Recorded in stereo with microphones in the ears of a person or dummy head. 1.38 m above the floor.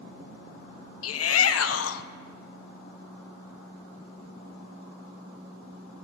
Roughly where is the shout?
Left.